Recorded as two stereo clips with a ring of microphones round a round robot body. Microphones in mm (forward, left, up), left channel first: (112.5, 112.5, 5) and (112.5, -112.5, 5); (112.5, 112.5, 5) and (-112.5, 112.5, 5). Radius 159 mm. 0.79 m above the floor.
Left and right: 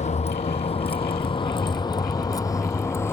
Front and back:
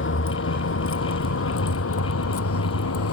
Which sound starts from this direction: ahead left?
A vehicle, at 0.0 s.